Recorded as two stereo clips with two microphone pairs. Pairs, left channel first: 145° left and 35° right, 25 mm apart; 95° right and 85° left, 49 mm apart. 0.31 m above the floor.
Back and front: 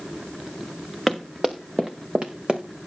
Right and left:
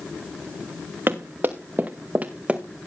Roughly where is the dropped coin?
No dropped coin in this recording.